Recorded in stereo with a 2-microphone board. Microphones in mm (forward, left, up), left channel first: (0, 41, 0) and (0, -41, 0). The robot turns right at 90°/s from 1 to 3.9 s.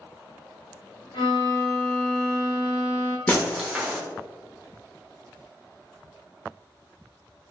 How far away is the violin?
About 1.2 m.